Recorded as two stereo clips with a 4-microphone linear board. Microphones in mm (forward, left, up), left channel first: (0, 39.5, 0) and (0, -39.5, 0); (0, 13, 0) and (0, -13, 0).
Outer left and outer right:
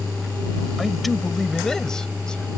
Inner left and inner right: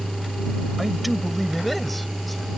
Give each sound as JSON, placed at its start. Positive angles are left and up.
{"t": 0.8, "sound": "a man speaking", "side_deg": 0}